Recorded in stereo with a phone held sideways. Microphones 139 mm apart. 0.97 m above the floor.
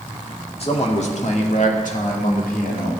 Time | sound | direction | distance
0.6 | a man speaking | 45° left (ahead or behind) | 1.9 m